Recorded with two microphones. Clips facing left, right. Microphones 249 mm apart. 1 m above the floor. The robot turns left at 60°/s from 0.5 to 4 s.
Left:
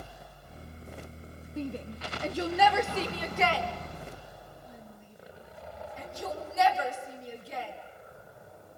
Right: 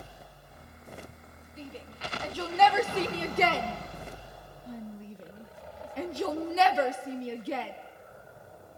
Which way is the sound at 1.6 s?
70° left (ahead or behind).